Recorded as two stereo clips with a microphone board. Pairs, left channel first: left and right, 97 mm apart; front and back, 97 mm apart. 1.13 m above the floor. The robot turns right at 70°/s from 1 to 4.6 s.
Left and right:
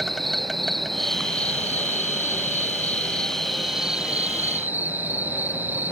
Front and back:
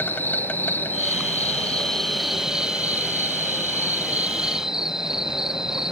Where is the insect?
5° left; by 5.9 s 105° right.